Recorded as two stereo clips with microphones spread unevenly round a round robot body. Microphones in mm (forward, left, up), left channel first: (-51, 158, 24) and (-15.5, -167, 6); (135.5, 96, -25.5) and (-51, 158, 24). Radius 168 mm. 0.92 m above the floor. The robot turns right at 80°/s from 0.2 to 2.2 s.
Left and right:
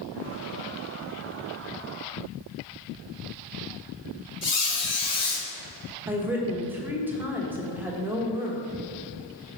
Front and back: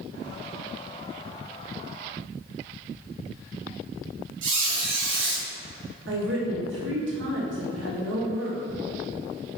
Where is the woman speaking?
165° right, 1.2 m.